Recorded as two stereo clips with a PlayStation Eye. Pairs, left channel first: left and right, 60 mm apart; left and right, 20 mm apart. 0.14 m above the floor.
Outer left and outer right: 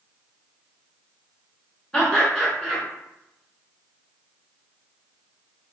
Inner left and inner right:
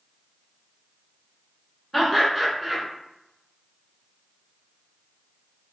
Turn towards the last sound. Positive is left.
turn(degrees=10)  # may be behind; listen again after turning